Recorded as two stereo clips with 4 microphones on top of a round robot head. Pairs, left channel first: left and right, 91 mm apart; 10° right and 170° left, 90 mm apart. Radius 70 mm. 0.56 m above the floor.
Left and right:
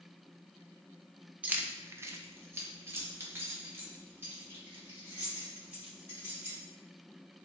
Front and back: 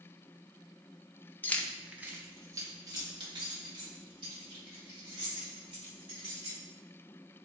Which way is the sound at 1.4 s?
40° right.